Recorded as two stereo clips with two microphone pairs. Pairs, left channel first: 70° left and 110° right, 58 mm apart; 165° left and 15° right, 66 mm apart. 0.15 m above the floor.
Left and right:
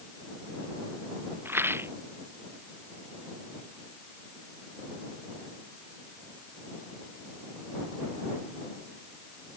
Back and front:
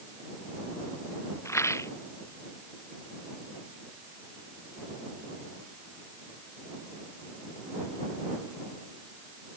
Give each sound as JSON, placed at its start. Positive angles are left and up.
{"t": 1.4, "sound": "a rattle", "azimuth_deg": -155}